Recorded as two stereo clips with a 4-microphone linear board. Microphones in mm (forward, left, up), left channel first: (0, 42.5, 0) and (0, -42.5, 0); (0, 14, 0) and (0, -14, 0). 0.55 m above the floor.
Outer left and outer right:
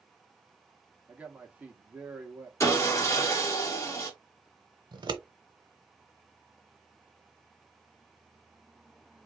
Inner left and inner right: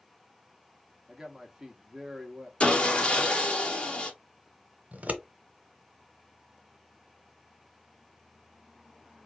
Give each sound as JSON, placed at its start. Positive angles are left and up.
{"t": 1.1, "sound": "a man speaking", "side_deg": -15, "distance_m": 0.9}
{"t": 2.6, "sound": "sawing", "side_deg": 35, "distance_m": 1.0}
{"t": 4.9, "sound": "scissors", "side_deg": -55, "distance_m": 0.8}